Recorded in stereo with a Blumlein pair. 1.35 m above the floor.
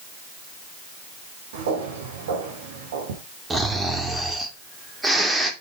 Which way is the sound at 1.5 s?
60° right.